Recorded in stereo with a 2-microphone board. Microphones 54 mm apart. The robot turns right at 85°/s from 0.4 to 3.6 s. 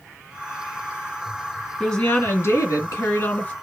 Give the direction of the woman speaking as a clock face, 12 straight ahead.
12 o'clock.